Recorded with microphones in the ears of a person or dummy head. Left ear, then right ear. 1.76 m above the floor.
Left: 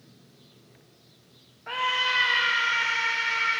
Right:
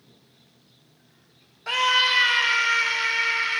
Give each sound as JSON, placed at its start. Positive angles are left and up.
{"t": 1.7, "sound": "a scream", "side_deg": -80, "distance_m": 1.5}